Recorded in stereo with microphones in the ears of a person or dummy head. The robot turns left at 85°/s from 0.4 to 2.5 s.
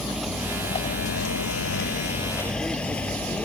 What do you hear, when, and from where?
0.0 s a vehicle: centre (ahead or behind); by 3.5 s 5° left (ahead or behind)